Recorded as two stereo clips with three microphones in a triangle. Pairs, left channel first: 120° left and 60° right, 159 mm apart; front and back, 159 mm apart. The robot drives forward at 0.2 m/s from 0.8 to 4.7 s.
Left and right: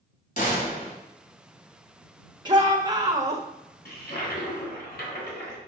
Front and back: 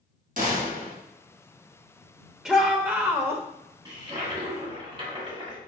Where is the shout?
95° right, 0.9 m; by 3.4 s 115° right, 0.9 m.